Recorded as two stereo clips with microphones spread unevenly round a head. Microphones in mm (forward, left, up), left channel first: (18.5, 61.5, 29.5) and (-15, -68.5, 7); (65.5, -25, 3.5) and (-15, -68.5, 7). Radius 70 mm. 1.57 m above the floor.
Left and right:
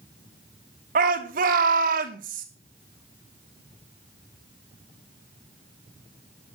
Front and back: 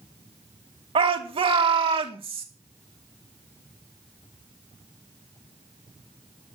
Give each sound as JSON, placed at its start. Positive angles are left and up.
{"t": 0.9, "sound": "a shout", "azimuth_deg": -130, "distance_m": 3.0}